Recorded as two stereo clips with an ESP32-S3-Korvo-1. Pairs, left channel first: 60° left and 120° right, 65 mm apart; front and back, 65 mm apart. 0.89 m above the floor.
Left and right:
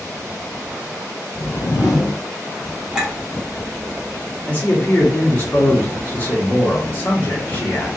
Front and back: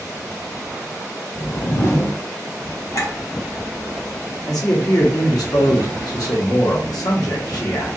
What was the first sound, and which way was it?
A whoosh, 45° left.